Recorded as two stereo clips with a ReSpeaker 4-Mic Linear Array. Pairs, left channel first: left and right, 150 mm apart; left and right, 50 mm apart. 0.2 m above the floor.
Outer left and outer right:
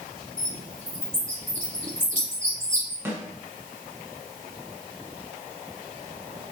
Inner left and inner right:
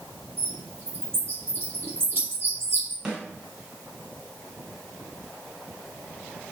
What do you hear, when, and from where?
0.4 s a bird: 55° right (ahead or behind), 2.5 m
3.0 s a snare drum: 15° right (ahead or behind), 1.7 m